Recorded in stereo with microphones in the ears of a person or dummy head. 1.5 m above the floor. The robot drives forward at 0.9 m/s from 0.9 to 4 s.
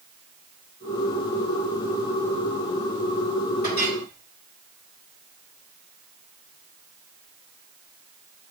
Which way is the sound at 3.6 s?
50° left (ahead or behind).